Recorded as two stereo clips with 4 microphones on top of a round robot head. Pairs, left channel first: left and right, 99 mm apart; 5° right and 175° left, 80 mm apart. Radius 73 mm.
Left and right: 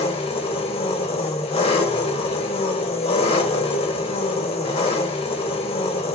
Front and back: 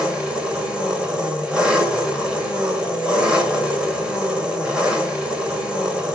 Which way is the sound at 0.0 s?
100° left.